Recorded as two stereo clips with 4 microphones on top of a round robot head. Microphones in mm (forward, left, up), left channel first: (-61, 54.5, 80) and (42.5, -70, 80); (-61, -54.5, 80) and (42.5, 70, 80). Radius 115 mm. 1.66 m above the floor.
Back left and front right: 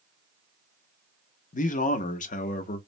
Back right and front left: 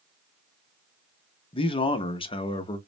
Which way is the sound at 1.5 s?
170° left.